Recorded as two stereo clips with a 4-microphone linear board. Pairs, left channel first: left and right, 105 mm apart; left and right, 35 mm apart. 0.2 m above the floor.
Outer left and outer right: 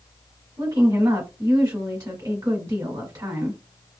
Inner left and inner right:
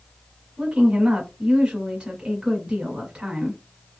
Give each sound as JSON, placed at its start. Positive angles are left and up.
{"t": 0.6, "sound": "a woman speaking", "side_deg": -35, "distance_m": 1.2}